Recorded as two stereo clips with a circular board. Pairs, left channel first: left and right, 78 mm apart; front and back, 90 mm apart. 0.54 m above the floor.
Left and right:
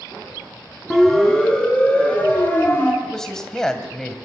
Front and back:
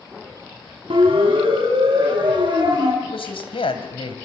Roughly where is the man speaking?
Ahead.